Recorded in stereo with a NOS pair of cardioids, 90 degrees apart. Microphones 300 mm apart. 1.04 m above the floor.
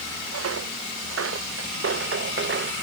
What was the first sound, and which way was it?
Footsteps, 55° right.